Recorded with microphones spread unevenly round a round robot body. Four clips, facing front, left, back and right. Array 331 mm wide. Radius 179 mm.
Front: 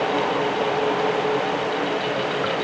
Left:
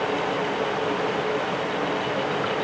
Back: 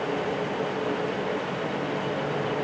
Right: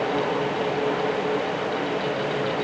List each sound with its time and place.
Only background noise.